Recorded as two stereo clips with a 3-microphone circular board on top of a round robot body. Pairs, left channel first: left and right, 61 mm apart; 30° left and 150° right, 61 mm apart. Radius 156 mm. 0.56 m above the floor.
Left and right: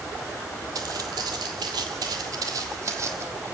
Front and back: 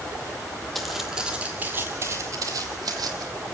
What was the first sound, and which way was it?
Footsteps, 60° right.